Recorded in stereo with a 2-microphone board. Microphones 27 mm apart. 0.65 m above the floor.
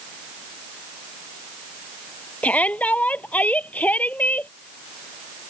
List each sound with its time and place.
2.4 s a shout: 65° left (ahead or behind); by 4.5 s 75° left (ahead or behind)